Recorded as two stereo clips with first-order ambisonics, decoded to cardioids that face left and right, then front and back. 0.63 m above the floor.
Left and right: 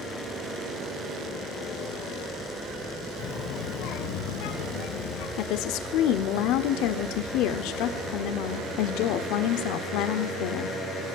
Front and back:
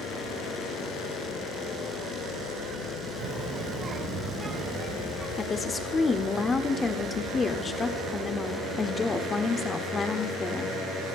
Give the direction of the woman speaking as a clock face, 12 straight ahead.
10 o'clock.